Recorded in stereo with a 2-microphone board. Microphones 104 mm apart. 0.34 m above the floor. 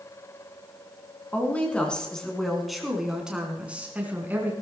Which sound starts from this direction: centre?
A woman speaking, at 1.3 s.